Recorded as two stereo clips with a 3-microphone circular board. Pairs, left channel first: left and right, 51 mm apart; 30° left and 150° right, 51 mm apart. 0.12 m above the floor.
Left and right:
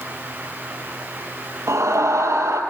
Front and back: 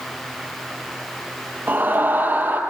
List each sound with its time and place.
1.7 s a scream: 100° right, 3.5 m